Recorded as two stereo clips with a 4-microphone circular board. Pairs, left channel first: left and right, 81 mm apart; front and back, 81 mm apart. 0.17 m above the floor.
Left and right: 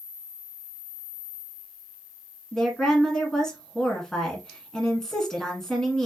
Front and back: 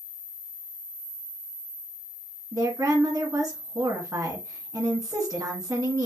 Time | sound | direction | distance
2.5 | a woman speaking | 170° left | 1.6 m